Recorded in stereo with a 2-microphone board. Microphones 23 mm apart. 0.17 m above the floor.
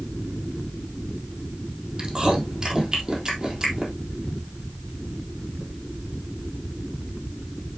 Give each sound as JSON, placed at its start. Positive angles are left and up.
{"t": 2.0, "sound": "chewing", "side_deg": -30, "distance_m": 4.0}